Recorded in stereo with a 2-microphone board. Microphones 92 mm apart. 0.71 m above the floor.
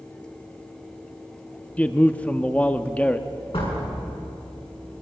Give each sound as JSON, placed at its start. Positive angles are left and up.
{"t": 1.8, "sound": "a man speaking", "side_deg": 15, "distance_m": 0.8}
{"t": 3.5, "sound": "a door slam", "side_deg": 70, "distance_m": 6.5}